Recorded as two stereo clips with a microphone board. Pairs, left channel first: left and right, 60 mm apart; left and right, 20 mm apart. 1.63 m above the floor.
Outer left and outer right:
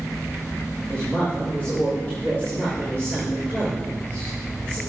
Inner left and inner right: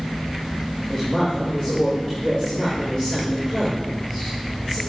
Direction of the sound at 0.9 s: 35° left (ahead or behind).